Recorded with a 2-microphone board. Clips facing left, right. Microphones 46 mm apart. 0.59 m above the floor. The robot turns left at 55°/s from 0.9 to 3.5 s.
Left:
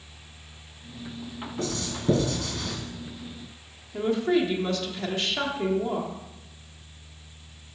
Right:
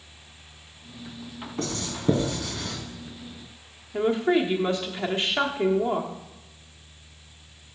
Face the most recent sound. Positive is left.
turn(degrees=-25)  # may be behind; listen again after turning